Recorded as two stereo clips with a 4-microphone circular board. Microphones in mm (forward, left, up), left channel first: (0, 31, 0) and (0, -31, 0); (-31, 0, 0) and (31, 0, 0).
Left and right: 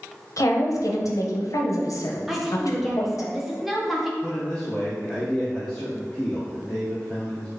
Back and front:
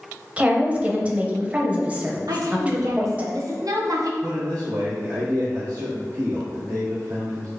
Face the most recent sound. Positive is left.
turn(degrees=15)